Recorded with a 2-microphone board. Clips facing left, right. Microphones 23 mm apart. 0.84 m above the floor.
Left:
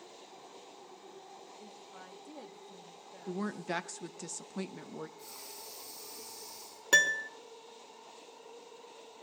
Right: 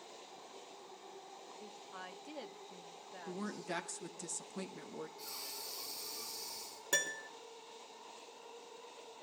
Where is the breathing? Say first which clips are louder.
Right 2 dB; 50° right (ahead or behind), 5.5 m.